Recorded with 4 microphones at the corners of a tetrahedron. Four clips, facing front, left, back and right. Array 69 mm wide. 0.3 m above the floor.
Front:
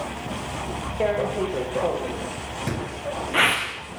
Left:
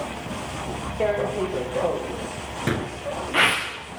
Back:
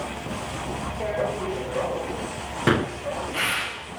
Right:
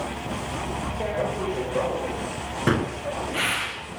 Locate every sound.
1.0 s tearing paper: 45° left, 8 m
2.7 s a gunshot: 155° right, 2 m